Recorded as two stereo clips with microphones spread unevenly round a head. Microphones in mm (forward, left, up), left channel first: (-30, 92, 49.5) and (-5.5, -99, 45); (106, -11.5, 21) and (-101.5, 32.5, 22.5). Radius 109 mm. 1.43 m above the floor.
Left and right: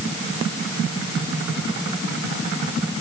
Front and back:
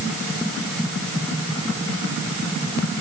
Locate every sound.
Only background noise.